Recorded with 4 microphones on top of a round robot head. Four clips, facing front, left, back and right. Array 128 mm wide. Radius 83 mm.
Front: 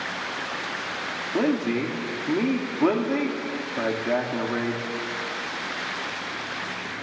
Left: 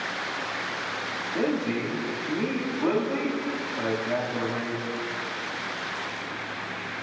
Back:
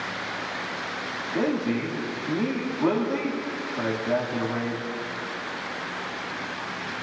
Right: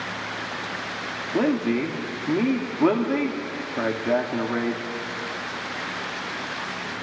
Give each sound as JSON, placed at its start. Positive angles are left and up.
{"t": 1.3, "sound": "a man speaking", "azimuth_deg": -60, "distance_m": 1.5}